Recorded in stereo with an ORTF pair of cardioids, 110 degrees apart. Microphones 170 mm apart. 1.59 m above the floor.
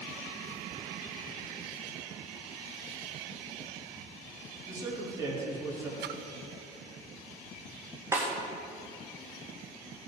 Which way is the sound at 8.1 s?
15° right.